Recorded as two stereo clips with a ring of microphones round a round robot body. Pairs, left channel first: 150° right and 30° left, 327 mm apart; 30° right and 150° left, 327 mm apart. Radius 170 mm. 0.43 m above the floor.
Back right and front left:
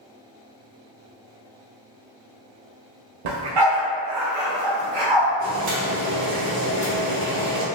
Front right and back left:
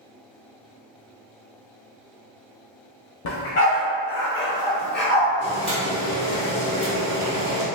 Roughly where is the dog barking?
Ahead.